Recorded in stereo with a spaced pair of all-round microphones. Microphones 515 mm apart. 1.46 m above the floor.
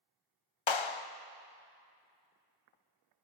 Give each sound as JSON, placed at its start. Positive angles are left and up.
{"t": 0.7, "sound": "a clap", "side_deg": 60, "distance_m": 0.6}